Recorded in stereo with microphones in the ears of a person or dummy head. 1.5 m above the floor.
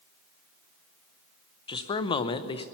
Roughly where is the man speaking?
Left.